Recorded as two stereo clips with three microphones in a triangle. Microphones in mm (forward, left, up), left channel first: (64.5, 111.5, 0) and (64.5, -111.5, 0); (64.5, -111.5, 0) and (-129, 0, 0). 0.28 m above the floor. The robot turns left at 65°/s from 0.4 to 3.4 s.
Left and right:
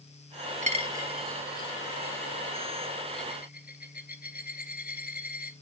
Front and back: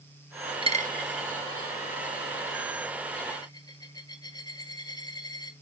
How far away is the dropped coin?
About 0.7 m.